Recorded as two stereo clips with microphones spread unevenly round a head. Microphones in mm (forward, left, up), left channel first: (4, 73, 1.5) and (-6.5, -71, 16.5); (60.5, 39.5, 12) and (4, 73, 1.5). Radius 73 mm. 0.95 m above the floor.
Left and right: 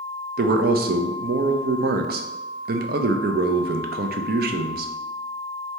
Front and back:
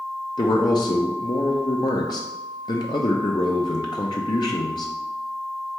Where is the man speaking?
75° right, 0.5 m.